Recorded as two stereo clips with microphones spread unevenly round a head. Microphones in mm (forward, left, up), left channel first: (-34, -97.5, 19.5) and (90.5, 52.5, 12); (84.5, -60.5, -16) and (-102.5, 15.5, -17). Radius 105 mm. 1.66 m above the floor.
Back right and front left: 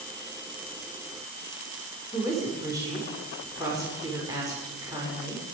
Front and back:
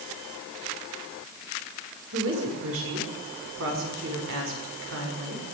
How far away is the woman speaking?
About 6.5 m.